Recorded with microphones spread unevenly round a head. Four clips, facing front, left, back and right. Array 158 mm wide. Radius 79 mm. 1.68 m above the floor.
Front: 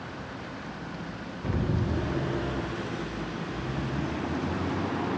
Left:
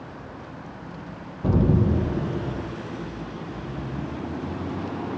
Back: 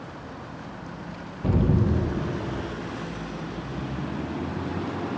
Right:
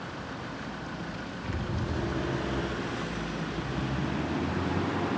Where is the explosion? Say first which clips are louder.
Left 15 dB, back 7 dB; 115° left, 0.6 m.